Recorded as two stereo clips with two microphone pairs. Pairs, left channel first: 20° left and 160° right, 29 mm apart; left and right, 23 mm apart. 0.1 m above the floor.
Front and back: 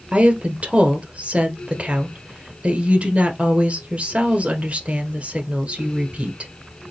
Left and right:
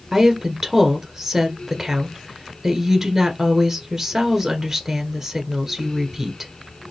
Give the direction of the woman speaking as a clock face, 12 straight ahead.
5 o'clock.